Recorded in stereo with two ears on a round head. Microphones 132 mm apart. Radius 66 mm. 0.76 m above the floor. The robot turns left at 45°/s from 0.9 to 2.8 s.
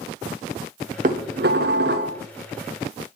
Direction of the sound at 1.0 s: 55° right.